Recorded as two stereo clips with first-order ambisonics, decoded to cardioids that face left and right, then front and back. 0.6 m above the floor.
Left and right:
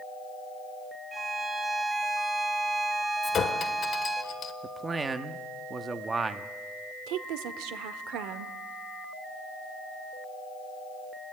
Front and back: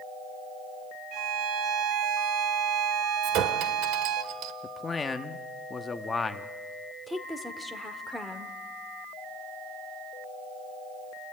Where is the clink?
150° left, 1.5 m.